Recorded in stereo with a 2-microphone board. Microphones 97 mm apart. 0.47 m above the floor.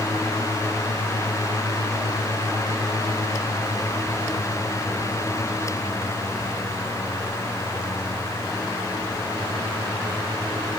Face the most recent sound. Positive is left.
No sound to turn to.